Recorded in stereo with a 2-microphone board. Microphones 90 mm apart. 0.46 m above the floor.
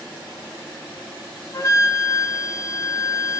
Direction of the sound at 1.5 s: 35° left (ahead or behind).